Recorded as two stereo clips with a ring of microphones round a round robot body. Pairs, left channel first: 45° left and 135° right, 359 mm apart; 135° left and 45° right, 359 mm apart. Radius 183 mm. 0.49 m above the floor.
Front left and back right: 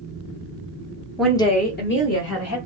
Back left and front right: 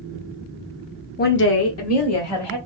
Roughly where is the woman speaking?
Behind left.